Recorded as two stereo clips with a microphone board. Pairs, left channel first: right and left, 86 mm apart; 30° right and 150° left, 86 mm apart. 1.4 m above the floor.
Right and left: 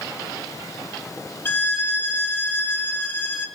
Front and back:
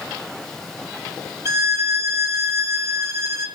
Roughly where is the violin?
Behind right.